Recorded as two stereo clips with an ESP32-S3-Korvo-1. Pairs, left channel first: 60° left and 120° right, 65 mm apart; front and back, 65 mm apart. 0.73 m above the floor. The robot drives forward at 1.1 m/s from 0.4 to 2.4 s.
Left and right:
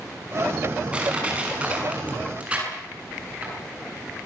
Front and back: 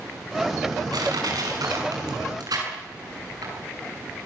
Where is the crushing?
170° left, 6.5 m.